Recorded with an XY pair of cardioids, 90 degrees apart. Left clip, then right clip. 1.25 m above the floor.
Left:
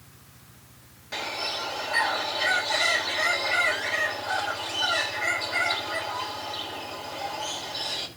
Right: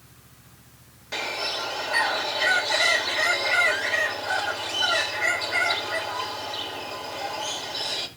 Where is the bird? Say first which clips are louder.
Right 2 dB; 35° right, 1.8 m.